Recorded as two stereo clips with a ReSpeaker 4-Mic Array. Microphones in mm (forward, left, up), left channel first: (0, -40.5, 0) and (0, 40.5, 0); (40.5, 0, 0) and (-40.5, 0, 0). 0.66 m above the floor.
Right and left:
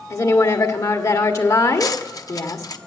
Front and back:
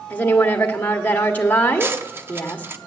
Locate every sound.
0.1 s a woman speaking: 60° right, 1.5 m
1.8 s cutlery clinking: 125° right, 0.7 m